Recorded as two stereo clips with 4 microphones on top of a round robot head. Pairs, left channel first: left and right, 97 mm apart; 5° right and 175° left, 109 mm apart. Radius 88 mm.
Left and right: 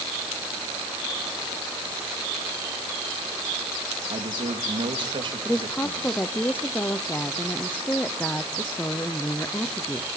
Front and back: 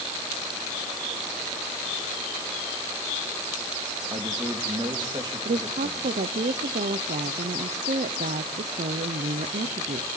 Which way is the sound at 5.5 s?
165° left.